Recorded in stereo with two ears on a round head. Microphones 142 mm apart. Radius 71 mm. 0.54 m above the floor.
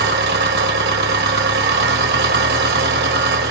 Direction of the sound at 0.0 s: 65° right (ahead or behind).